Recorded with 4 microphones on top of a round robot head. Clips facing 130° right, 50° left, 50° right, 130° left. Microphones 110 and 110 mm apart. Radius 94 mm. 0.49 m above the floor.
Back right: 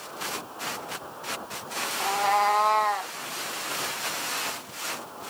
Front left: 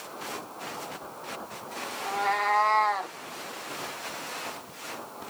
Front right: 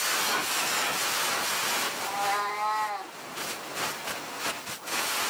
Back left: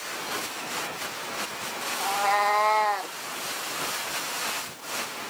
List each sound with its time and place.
2.0 s a cat meowing: straight behind, 0.8 m; by 3.2 s 120° left, 0.6 m